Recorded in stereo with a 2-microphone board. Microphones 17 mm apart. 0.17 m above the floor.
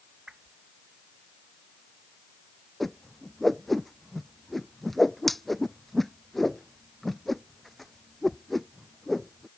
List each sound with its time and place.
0.3 s a whoosh: 75° right (ahead or behind)
2.8 s a whoosh: 10° left (ahead or behind)